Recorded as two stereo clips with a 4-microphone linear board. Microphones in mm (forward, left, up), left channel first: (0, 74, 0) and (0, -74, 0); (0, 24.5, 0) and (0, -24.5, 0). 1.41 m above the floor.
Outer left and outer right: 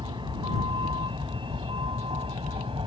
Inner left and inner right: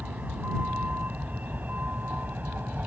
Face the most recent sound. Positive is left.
turn(degrees=-35)  # may be behind; listen again after turning